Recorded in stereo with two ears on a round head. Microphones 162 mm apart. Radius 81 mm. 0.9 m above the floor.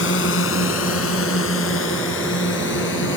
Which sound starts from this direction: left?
A drone, at 0.0 s.